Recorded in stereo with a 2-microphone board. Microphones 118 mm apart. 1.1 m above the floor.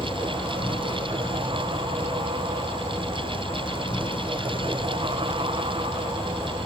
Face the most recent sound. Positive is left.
turn(degrees=55)  # may be behind; listen again after turning